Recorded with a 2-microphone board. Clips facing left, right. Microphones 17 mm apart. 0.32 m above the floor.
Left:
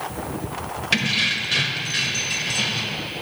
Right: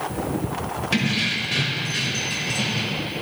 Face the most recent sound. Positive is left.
turn(degrees=25)  # may be behind; listen again after turning